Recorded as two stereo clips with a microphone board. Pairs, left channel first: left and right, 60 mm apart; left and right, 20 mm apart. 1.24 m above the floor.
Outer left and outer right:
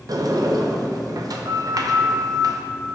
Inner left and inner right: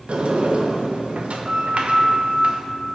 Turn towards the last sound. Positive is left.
turn(degrees=-85)